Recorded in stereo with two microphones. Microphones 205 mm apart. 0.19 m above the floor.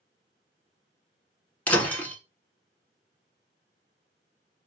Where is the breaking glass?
5° left (ahead or behind), 0.9 m.